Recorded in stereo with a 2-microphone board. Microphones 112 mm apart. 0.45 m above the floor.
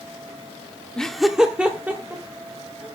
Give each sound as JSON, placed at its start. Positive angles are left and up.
{"t": 1.0, "sound": "laughter", "side_deg": 10, "distance_m": 0.8}